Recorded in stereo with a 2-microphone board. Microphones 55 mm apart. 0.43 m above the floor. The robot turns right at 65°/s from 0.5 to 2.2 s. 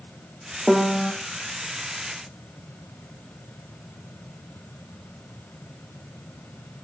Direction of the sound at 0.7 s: 5° right (ahead or behind).